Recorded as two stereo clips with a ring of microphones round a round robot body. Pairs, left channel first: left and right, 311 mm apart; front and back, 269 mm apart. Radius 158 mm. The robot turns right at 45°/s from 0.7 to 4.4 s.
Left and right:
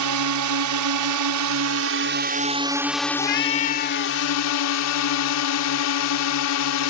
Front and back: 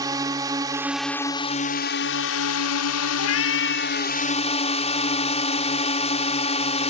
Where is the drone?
105° right; by 6.9 s 65° left.